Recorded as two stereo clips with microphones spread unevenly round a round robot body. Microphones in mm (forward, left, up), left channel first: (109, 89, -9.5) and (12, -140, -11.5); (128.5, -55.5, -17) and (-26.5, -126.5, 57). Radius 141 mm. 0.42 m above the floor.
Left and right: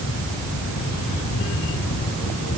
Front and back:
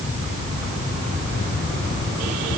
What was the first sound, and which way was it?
Only background noise.